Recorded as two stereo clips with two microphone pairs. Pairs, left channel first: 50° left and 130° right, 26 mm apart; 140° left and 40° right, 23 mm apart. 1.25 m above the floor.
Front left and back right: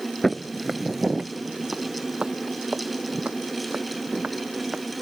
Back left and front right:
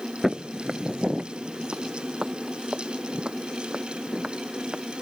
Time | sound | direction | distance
0.2 | footsteps | straight ahead | ?